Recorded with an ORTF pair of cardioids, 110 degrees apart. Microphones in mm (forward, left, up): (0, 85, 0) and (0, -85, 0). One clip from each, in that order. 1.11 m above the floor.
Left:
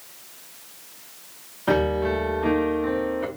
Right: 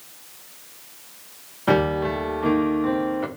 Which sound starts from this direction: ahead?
A piano, at 1.7 s.